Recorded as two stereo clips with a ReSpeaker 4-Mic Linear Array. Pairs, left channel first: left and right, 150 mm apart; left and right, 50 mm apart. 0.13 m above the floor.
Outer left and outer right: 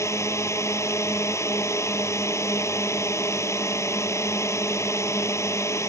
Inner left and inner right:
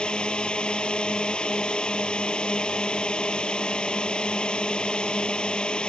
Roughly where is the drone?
Centre.